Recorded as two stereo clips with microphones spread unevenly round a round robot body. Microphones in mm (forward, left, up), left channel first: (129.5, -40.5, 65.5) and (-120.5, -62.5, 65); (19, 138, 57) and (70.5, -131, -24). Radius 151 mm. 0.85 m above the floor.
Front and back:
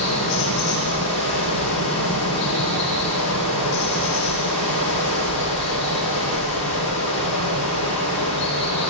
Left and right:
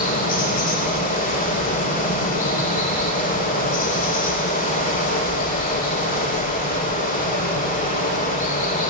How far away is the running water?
About 9 m.